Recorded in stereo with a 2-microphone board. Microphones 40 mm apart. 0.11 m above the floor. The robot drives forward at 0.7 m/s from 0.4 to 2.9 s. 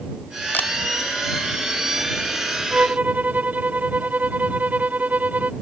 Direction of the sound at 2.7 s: 40° right (ahead or behind).